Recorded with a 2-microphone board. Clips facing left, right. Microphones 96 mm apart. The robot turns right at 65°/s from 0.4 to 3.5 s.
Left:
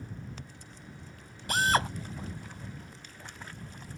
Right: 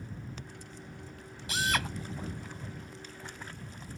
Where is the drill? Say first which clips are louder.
Left 5 dB; 50° left (ahead or behind); by 1.9 s 25° left (ahead or behind).